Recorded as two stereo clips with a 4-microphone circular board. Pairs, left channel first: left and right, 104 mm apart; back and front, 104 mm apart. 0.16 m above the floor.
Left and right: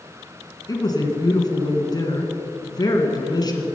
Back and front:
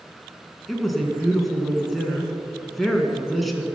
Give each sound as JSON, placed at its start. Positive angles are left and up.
{"t": 0.7, "sound": "a woman speaking", "azimuth_deg": 90, "distance_m": 2.0}